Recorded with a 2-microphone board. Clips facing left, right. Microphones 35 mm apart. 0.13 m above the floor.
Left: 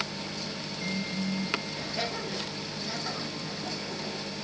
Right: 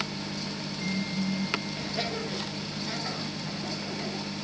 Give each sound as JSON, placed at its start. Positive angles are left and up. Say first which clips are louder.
{"t": 1.8, "sound": "laughter", "louder": "right 1 dB", "side_deg": -10, "distance_m": 3.5}